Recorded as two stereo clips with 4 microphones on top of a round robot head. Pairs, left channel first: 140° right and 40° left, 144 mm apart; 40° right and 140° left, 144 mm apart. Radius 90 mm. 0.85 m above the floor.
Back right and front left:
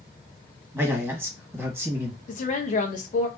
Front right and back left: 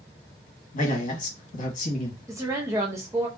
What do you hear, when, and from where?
0.7 s a man speaking: 35° right, 1.4 m
2.3 s a woman speaking: 150° right, 0.5 m